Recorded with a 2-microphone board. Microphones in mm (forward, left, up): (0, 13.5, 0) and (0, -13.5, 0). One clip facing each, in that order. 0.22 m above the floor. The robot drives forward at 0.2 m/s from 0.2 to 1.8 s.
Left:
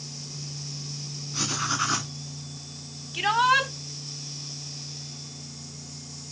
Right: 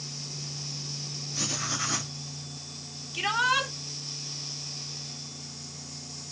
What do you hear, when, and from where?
1.3 s writing: 55° left (ahead or behind), 1.7 m
3.1 s a shout: 25° left (ahead or behind), 1.2 m